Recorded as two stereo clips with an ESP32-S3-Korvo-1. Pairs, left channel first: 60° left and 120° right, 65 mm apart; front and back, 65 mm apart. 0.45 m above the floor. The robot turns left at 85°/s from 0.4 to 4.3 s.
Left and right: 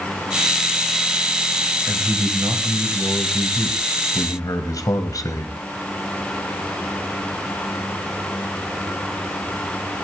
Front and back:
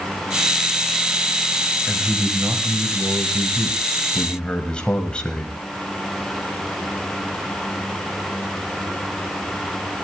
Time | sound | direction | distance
1.9 | a man speaking | 80° right | 3.5 m